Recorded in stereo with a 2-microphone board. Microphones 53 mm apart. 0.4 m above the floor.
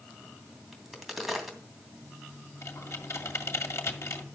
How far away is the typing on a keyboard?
About 1.9 m.